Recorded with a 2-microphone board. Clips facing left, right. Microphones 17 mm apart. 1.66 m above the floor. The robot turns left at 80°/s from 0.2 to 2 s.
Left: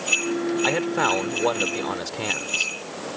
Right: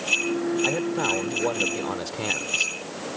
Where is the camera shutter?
I don't hear a camera shutter.